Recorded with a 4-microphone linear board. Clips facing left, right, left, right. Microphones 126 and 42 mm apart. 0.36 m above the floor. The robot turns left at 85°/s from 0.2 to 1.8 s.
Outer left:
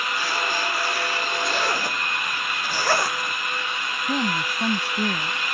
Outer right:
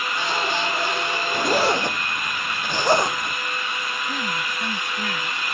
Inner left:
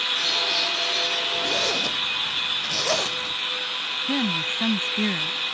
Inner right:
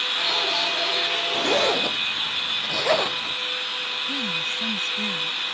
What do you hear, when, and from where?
1.3 s a zipper: 60° right (ahead or behind); by 3.4 s 20° right (ahead or behind)
4.1 s a woman speaking: 35° left (ahead or behind)